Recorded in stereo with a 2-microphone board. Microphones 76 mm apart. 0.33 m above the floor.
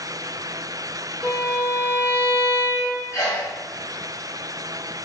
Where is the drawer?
No drawer in this recording.